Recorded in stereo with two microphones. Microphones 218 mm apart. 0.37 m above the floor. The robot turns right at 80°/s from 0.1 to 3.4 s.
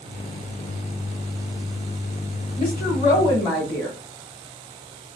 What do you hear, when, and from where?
2.6 s a woman speaking: 105° left, 2 m; by 4.0 s 175° left, 2 m